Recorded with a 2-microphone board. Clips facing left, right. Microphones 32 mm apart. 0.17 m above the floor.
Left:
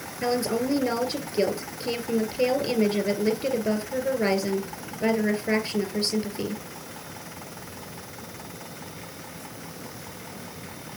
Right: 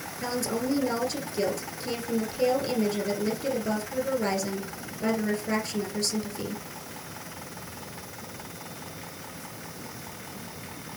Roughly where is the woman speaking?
Left.